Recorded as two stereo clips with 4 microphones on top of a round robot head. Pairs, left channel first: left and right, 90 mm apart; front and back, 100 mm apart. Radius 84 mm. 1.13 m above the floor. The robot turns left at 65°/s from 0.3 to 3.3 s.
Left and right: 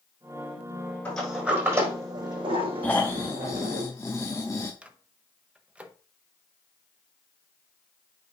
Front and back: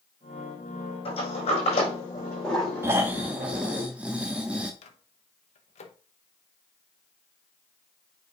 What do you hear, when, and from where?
1.1 s a sliding door: 15° left, 5 m; by 3.8 s 130° right, 5 m
2.8 s snoring: 150° left, 0.6 m; by 4.7 s 120° left, 0.6 m
4.8 s a microwave: 10° right, 0.9 m